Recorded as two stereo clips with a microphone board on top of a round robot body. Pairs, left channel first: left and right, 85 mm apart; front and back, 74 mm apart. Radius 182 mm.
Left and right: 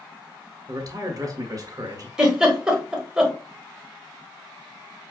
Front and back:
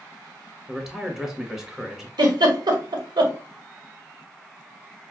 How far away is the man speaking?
About 1.5 m.